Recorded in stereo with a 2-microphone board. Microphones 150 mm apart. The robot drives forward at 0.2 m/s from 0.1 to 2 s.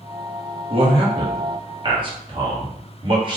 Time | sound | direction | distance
0.7 | a man speaking | 40° right (ahead or behind) | 1.2 m